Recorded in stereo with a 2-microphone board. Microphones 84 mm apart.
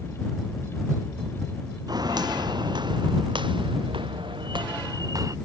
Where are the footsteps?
55° right (ahead or behind); by 5.4 s 40° right (ahead or behind).